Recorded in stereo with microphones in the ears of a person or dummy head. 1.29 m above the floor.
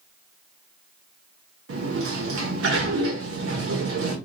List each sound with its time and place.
1.7 s a sliding door: 70° right (ahead or behind), 0.8 m